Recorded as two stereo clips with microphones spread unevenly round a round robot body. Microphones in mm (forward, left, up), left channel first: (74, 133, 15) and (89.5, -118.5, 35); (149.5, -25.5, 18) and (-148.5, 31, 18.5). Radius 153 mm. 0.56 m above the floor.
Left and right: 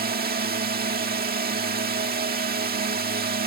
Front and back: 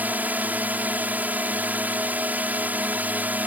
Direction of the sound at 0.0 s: 110° right.